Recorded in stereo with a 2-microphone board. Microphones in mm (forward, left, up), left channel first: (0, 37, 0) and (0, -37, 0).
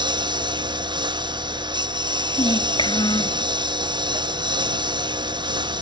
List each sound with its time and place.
0.0 s a lawn mower: 90° right
2.4 s a child speaking: 85° left